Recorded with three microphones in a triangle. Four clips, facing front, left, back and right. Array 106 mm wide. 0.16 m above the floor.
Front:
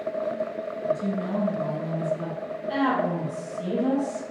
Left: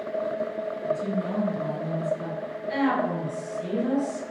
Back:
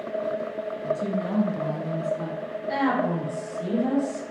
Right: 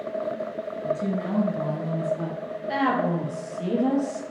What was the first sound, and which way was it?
A woman speaking, 120° right.